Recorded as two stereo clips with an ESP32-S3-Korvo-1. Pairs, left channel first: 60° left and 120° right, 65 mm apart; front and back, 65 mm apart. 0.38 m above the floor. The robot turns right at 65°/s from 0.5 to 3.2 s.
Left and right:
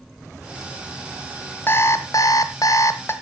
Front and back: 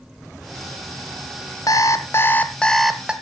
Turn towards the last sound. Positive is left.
turn(degrees=110)